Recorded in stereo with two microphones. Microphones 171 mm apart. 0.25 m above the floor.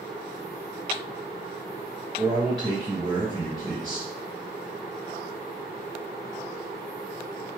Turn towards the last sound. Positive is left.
turn(degrees=-30)  # may be behind; listen again after turning